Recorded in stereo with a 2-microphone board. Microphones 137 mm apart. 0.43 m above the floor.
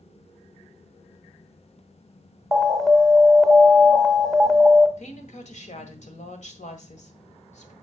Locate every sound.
2.5 s an alarm: centre (ahead or behind), 0.9 m
5.0 s a woman speaking: 60° left (ahead or behind), 1.7 m